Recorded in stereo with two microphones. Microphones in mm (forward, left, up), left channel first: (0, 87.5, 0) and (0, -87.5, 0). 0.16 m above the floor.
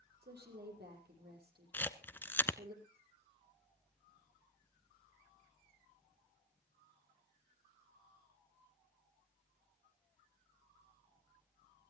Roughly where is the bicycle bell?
No bicycle bell in this recording.